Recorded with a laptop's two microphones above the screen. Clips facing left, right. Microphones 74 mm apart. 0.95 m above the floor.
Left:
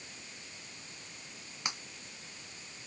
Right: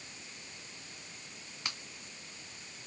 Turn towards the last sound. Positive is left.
turn(degrees=20)  # may be behind; listen again after turning